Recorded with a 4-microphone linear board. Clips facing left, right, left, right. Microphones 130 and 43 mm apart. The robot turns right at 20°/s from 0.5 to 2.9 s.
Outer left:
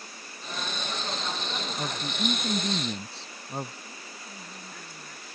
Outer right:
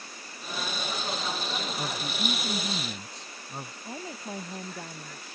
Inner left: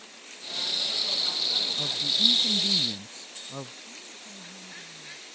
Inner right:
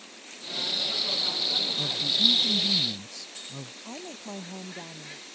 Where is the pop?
I don't hear a pop.